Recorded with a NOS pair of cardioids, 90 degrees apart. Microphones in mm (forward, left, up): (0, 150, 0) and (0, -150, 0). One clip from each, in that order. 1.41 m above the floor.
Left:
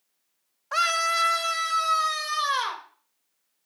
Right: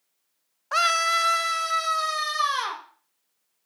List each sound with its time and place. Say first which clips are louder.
0.7 s a scream: right 2 dB; 15° right, 0.7 m; by 2.8 s 5° right, 2.5 m